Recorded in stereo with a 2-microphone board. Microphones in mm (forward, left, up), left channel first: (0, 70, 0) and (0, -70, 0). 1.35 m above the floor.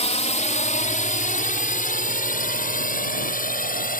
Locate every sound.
0.0 s a drone: 50° left (ahead or behind); by 4.0 s 80° left